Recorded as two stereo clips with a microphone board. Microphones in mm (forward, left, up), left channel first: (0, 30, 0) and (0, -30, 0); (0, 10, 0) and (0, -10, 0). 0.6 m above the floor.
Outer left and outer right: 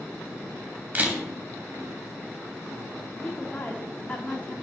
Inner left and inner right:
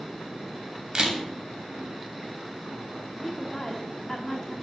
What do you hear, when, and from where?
0.9 s a camera shutter: 25° right (ahead or behind), 2.5 m
3.2 s a woman speaking: 30° left (ahead or behind), 1.3 m